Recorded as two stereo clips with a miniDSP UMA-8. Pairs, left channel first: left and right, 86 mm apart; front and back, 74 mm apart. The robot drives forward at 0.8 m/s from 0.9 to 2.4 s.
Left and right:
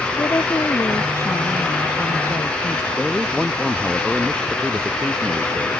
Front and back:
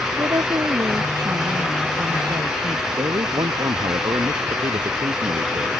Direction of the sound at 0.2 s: 150° left.